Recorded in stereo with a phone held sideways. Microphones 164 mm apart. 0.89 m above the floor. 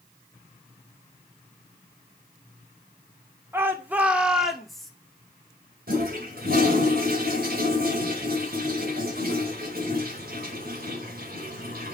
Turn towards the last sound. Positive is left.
turn(degrees=-70)  # may be behind; listen again after turning